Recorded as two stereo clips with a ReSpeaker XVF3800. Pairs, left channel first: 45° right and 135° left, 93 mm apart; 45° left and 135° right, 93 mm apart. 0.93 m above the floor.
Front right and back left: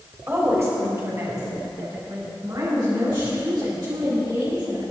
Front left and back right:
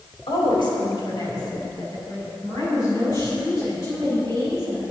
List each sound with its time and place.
0.3 s a woman speaking: 70° left, 4 m; by 4.8 s 100° left, 10.5 m